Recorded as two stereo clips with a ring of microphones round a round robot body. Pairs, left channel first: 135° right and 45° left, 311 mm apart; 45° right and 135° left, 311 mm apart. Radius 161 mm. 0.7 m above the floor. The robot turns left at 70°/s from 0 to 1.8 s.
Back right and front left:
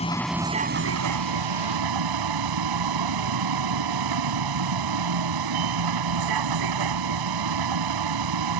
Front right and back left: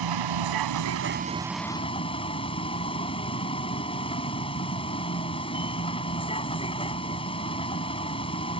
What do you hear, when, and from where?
0.0 s a vehicle: 155° left; by 8.6 s 30° left